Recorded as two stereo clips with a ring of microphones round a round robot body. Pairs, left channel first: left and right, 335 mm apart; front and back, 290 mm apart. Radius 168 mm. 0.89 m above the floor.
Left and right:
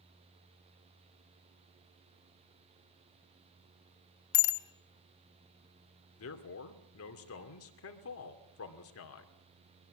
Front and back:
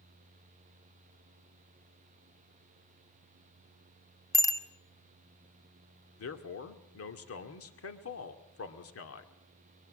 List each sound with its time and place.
4.3 s a bicycle bell: 80° left, 2 m
6.2 s a man speaking: 40° left, 2.5 m